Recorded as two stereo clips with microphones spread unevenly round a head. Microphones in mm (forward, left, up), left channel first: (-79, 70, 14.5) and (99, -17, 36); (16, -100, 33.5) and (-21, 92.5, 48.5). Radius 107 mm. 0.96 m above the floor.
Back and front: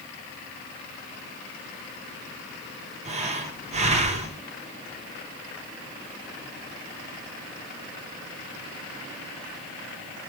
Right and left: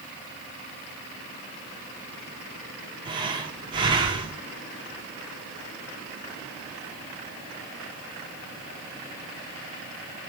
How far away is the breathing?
About 0.7 m.